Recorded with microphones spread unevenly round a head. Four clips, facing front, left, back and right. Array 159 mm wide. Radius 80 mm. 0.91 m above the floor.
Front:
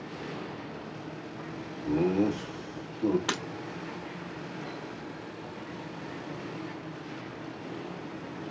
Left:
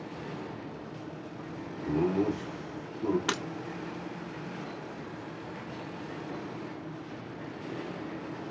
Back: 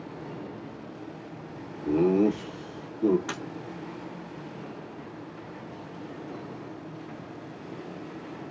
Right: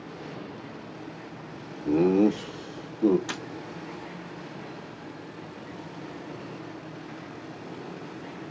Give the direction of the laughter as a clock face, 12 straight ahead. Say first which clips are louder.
Right 7 dB, back 4 dB; 4 o'clock.